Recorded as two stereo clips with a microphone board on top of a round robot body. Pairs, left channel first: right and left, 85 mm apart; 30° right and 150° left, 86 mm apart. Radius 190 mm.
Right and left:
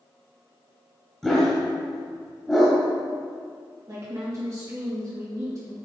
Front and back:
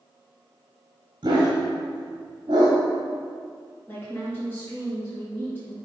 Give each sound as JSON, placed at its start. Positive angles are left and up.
{"t": 1.2, "sound": "a dog barking", "azimuth_deg": 180, "distance_m": 0.8}
{"t": 3.9, "sound": "a woman speaking", "azimuth_deg": 45, "distance_m": 2.0}